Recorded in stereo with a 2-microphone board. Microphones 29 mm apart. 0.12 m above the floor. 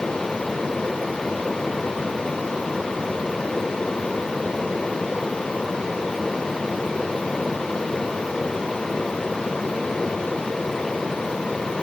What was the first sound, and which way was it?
Only background noise.